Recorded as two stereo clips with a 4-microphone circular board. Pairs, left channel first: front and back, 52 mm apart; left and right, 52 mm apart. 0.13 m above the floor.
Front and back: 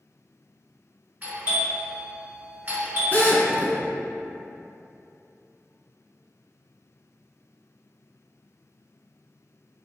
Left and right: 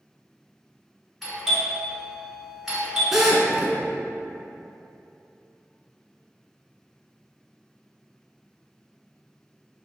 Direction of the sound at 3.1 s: 10° right.